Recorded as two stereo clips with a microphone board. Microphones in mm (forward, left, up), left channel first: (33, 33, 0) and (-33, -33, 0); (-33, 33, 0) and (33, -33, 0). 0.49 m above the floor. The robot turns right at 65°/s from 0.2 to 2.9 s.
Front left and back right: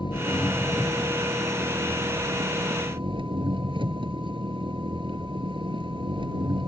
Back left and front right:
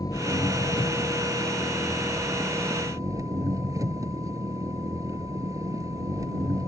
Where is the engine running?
85° left; by 6.7 s 100° right.